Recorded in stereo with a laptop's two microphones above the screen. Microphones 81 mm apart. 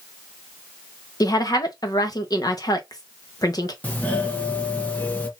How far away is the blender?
I don't hear a blender.